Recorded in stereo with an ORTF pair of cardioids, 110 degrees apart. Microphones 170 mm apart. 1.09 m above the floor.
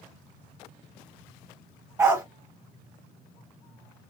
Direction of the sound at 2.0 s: 15° right.